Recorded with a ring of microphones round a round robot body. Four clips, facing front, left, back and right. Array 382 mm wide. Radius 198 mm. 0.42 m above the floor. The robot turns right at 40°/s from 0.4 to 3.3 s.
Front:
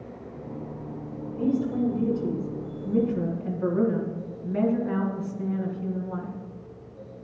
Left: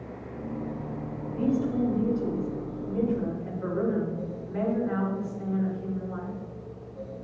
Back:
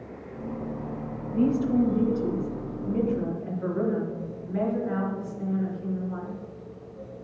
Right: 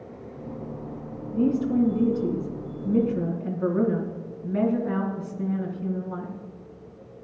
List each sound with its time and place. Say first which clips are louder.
1.3 s a woman speaking: right 4 dB, back 3 dB; 135° right, 4 m; by 6.4 s 55° right, 4 m